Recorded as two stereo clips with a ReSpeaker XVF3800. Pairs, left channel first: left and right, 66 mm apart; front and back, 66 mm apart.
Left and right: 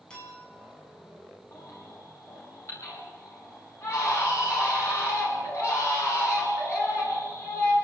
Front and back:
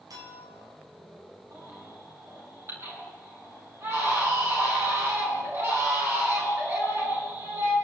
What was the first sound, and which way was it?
A clink, 165° left.